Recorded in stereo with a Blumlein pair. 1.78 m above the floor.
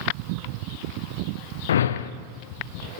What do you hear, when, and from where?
1.7 s a whoosh: 65° left, 0.6 m